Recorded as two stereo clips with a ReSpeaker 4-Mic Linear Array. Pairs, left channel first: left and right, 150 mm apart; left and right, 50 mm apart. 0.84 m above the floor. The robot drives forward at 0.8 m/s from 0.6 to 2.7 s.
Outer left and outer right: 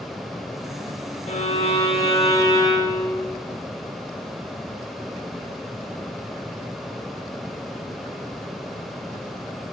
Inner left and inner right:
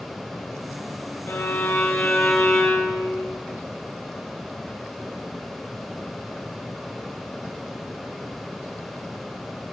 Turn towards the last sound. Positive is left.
turn(degrees=25)  # may be behind; listen again after turning